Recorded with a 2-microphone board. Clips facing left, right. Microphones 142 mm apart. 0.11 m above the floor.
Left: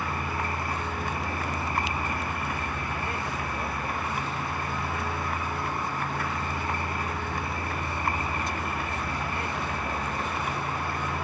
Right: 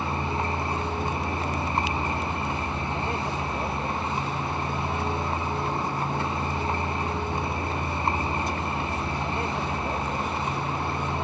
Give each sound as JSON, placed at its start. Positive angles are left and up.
{"t": 0.0, "sound": "a vehicle", "side_deg": -25}